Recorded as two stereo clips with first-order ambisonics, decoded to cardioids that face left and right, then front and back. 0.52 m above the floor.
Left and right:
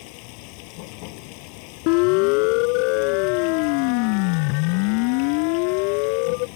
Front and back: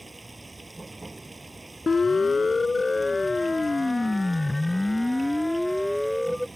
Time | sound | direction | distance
0.0 | running water | 100° left | ?
1.9 | a siren | 80° left | ?